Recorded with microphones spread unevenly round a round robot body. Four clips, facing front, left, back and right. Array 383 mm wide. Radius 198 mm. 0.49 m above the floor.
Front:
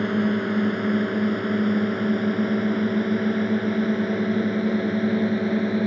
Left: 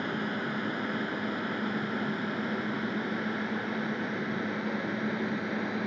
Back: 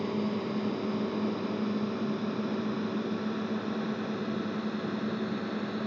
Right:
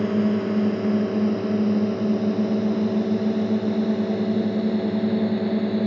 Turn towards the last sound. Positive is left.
turn(degrees=-45)